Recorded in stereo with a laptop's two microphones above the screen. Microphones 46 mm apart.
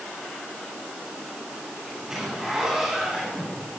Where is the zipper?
10° right (ahead or behind), 6.5 m.